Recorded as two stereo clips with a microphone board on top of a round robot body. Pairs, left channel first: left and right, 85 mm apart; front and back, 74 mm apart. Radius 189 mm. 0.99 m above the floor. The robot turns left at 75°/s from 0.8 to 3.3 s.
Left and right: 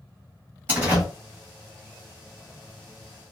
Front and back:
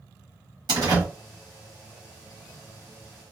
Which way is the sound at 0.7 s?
160° right.